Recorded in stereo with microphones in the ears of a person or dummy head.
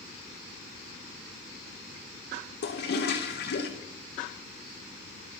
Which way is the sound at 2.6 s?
60° left (ahead or behind).